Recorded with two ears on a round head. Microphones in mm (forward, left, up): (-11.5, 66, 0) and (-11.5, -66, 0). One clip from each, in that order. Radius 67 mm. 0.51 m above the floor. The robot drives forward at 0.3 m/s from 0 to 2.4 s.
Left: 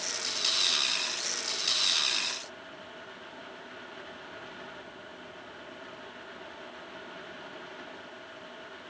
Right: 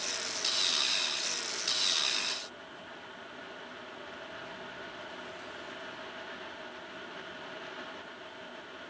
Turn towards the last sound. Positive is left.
No sound to turn to.